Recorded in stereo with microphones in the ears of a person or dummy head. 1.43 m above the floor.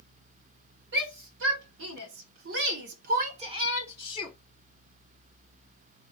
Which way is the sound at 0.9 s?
75° right (ahead or behind).